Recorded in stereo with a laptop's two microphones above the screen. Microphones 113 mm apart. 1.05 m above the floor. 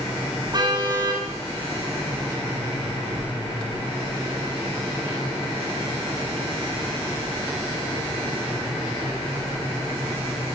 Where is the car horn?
40° right (ahead or behind), 7 m.